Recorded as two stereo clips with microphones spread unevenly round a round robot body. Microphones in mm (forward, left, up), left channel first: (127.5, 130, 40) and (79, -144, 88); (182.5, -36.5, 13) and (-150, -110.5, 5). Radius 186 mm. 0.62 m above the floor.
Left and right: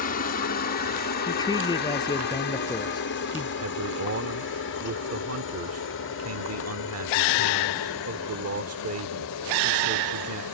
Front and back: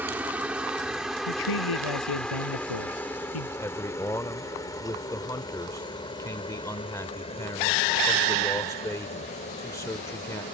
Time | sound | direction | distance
0.0 | a helicopter | 110° left | ?
1.3 | a man speaking | 5° left | ?
3.6 | a man speaking | 70° right | ?